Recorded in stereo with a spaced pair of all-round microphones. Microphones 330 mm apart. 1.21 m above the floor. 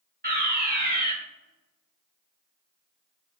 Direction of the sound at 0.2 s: 25° right (ahead or behind).